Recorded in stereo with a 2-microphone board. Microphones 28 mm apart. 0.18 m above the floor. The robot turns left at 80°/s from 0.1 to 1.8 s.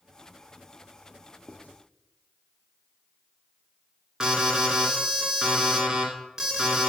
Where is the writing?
40° left (ahead or behind), 2 m; by 1.8 s 60° left (ahead or behind), 2 m.